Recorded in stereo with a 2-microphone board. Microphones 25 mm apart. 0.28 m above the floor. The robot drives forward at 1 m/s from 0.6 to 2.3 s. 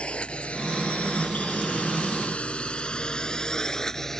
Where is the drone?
55° left (ahead or behind); by 4.2 s 20° left (ahead or behind).